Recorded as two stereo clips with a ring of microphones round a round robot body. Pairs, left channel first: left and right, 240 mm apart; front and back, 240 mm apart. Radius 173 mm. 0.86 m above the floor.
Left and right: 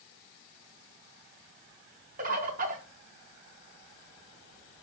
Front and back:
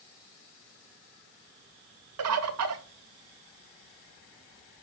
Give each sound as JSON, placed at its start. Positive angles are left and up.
{"t": 2.2, "sound": "a bird", "azimuth_deg": -155, "distance_m": 0.5}